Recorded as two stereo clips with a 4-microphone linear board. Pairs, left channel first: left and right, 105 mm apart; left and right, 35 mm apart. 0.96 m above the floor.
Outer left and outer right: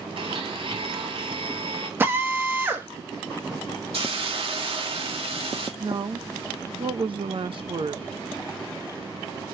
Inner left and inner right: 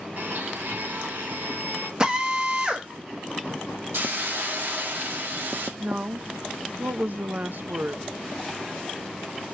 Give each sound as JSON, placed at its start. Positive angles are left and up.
{"t": 0.2, "sound": "a blender", "side_deg": -60, "distance_m": 3.0}
{"t": 2.0, "sound": "a drill", "side_deg": -20, "distance_m": 1.4}
{"t": 3.9, "sound": "a hiss", "side_deg": -65, "distance_m": 1.8}
{"t": 5.8, "sound": "a woman speaking", "side_deg": -60, "distance_m": 0.7}